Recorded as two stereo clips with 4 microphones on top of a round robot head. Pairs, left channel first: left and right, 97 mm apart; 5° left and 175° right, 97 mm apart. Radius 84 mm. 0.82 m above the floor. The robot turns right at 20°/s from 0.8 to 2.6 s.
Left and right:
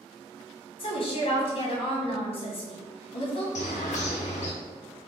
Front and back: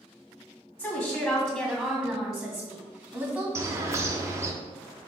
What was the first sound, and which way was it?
A woman speaking, 65° left.